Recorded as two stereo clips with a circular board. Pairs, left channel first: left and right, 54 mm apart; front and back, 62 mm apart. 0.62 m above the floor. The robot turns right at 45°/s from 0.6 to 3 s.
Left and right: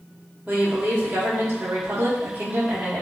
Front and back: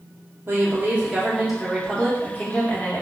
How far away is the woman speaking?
About 0.9 m.